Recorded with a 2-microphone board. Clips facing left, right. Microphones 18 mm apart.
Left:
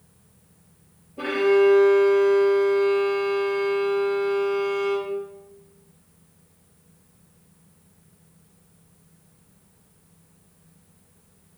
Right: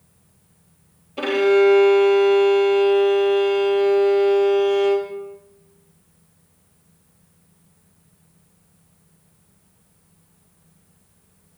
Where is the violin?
75° right (ahead or behind), 1.3 m.